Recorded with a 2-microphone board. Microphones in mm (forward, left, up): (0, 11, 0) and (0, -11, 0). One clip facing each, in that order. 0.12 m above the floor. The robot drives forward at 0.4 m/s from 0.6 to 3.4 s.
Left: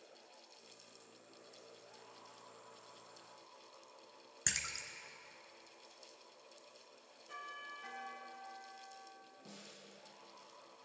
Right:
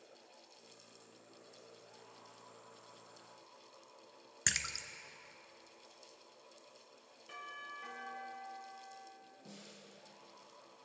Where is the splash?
25° right (ahead or behind), 0.7 m.